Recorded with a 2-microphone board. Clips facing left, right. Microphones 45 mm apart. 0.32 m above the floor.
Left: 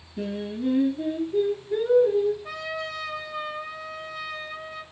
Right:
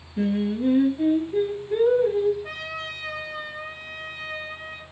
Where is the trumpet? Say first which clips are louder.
Left 1 dB; 40° right (ahead or behind), 2.5 m.